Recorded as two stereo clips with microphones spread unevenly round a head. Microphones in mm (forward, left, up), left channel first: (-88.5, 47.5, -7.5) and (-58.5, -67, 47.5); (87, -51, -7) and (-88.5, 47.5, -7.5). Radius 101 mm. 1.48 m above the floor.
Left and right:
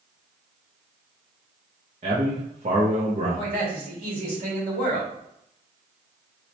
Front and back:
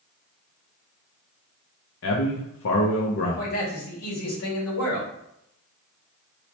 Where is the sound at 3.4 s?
15° right, 2.0 m.